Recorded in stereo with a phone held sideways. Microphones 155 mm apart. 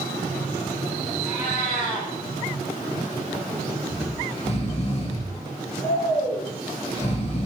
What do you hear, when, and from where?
1.2 s a cat meowing: 65° left (ahead or behind), 4 m
3.9 s snoring: 40° left (ahead or behind), 1.4 m